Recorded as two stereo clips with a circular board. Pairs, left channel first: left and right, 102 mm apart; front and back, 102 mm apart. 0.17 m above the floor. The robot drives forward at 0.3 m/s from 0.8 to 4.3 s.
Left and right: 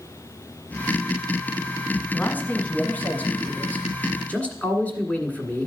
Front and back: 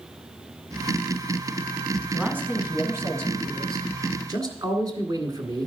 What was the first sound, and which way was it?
A man speaking, 135° left.